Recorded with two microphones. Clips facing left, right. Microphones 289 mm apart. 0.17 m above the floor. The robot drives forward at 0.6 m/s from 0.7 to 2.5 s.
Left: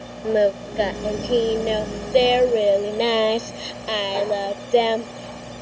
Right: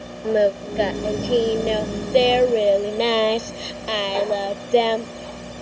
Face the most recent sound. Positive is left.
turn(degrees=0)  # may be behind; listen again after turning